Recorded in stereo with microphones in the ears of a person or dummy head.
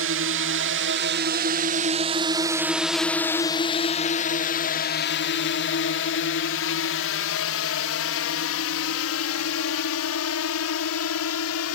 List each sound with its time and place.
0.0 s a drone: 60° right (ahead or behind); by 11.8 s 75° left (ahead or behind)